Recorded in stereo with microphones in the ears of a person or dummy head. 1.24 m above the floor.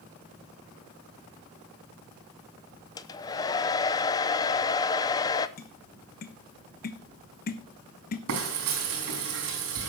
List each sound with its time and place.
3.0 s a hair dryer: 15° left (ahead or behind), 0.6 m
5.6 s tapping: 40° left (ahead or behind), 1.0 m
8.3 s frying: 80° right, 4.5 m